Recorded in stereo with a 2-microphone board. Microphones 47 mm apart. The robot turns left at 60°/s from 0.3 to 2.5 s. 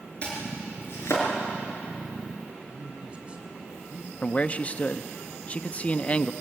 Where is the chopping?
25° left (ahead or behind), 5.5 m; by 1.3 s 85° left, 5.5 m.